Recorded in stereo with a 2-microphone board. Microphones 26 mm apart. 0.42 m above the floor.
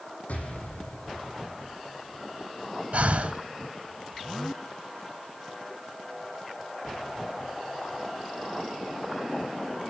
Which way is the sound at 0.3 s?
70° left (ahead or behind).